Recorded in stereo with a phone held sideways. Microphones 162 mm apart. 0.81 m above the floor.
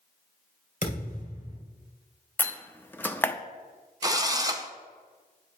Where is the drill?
25° right (ahead or behind), 0.8 m.